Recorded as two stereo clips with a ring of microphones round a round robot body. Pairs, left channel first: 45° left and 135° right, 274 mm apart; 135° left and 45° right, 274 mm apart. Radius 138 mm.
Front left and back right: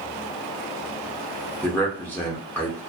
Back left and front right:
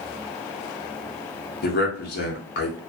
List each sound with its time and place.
1.6 s a man speaking: 125° left, 0.5 m